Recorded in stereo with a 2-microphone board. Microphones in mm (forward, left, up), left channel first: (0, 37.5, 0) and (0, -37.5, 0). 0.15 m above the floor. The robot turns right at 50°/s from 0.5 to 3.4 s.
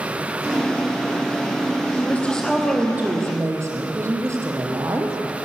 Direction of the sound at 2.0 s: 150° left.